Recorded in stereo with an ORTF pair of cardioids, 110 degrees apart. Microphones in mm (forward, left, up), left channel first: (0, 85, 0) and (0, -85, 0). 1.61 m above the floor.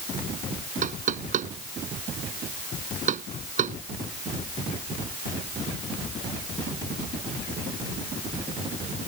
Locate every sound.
0.8 s knocking: 45° right